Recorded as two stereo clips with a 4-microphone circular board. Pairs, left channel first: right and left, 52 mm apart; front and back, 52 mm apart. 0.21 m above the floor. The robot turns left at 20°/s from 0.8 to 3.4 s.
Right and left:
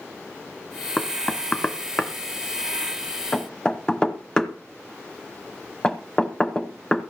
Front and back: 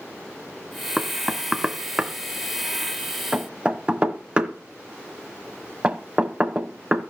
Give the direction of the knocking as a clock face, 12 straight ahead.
3 o'clock.